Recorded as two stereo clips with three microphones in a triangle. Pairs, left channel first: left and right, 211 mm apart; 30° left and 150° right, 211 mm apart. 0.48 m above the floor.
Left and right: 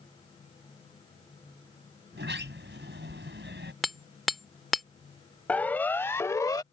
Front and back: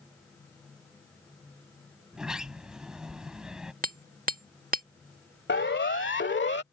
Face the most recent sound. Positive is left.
turn(degrees=25)